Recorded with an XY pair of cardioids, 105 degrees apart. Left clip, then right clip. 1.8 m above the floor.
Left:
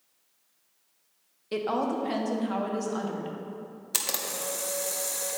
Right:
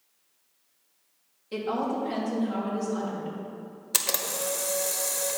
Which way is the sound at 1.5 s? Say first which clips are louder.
Left 1 dB; 50° left.